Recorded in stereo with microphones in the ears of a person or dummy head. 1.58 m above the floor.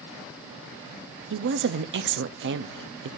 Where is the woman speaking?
60° right (ahead or behind), 0.5 m.